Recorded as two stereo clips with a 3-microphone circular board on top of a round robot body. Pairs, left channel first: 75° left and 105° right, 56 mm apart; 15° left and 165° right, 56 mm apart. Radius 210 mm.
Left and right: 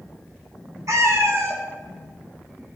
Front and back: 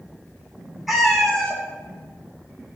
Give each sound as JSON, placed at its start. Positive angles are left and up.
{"t": 0.9, "sound": "a cat meowing", "azimuth_deg": -80, "distance_m": 1.2}